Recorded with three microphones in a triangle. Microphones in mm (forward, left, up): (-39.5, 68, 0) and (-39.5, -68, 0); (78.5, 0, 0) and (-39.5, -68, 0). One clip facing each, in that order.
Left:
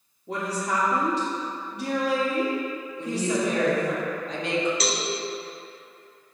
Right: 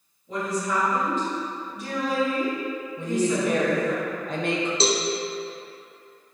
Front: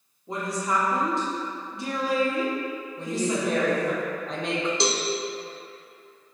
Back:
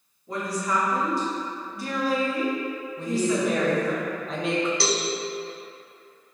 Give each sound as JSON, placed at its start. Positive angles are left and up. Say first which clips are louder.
{"t": 0.3, "sound": "a woman speaking", "louder": "right 1 dB, even", "azimuth_deg": 95, "distance_m": 2.0}
{"t": 3.0, "sound": "a woman speaking", "louder": "right 2 dB, back 3 dB", "azimuth_deg": -60, "distance_m": 1.3}
{"t": 4.8, "sound": "a cowbell", "louder": "right 5 dB, even", "azimuth_deg": -35, "distance_m": 0.6}